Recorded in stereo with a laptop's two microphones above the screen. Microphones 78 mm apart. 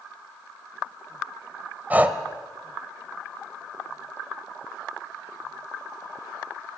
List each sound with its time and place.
1.9 s breathing: 20° right (ahead or behind), 1.2 m